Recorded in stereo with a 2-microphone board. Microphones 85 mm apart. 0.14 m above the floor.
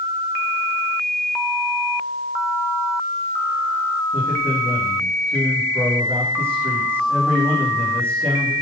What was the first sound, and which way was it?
A man speaking, 30° right (ahead or behind).